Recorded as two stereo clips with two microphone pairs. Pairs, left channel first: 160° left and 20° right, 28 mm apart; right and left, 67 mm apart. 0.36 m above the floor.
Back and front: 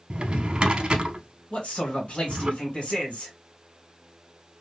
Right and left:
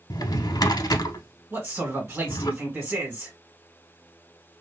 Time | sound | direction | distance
0.1 | a drawer | 70° right | 0.5 m
1.5 | a man speaking | 150° left | 2 m